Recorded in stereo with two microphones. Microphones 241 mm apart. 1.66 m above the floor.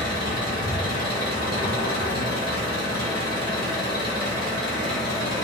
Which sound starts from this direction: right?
An engine running, at 0.0 s.